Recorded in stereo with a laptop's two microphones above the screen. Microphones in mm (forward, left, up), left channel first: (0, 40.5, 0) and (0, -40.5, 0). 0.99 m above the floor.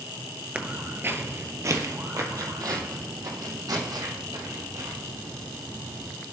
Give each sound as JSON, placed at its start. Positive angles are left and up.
{"t": 0.6, "sound": "footsteps", "side_deg": -15, "distance_m": 1.1}